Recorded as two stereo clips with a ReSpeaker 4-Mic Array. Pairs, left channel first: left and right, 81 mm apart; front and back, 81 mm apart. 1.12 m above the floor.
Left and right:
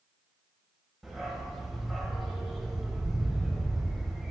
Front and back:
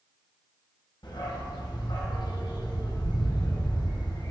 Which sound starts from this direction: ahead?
A dog barking, at 1.0 s.